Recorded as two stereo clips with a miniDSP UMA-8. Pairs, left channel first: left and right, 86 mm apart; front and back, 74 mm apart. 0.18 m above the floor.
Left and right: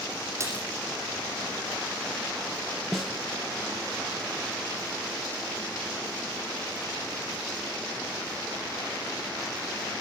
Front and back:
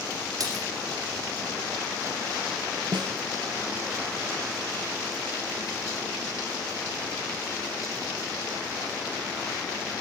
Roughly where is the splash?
Behind right.